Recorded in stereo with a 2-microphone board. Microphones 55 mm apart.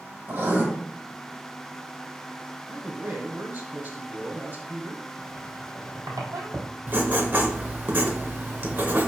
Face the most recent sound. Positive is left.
turn(degrees=-35)  # may be behind; listen again after turning